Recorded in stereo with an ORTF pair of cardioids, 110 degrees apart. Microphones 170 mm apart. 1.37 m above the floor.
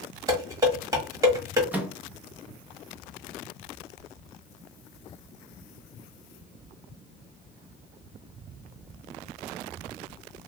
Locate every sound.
0.3 s dishes clattering: 20° right, 1.4 m
1.7 s a microwave: 10° right, 0.8 m